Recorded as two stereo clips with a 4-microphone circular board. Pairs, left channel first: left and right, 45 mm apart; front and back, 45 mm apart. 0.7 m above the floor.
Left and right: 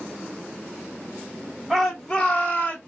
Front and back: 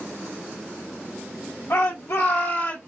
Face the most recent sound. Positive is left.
turn(degrees=40)